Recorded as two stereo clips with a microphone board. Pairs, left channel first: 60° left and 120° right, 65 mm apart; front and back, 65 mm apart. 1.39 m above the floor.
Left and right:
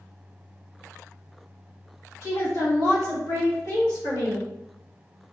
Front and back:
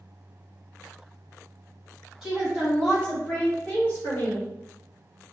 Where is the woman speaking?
90° left, 1.9 m; by 4.5 s 45° left, 1.8 m.